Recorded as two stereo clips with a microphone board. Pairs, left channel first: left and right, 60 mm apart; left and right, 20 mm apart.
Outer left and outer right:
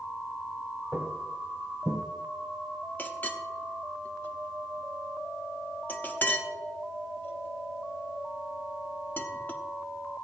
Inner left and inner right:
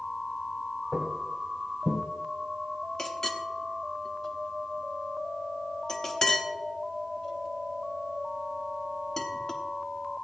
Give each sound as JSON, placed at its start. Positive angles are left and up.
{"t": 0.9, "sound": "footsteps", "side_deg": 10, "distance_m": 2.0}
{"t": 3.0, "sound": "a clink", "side_deg": 30, "distance_m": 0.9}